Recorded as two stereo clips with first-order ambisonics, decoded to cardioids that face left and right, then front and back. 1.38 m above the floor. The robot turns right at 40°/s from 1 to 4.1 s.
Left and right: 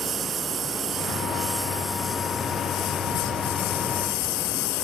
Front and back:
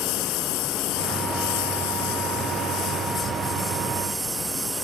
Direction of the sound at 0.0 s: 25° right.